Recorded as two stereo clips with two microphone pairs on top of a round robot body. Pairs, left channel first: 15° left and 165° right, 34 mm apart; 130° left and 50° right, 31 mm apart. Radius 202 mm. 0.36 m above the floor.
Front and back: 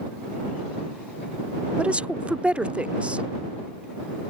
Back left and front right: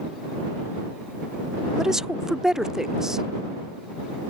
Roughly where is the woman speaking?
Behind right.